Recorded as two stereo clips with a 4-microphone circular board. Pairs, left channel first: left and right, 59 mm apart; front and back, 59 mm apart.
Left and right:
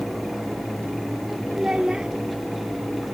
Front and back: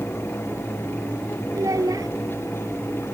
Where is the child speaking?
165° right.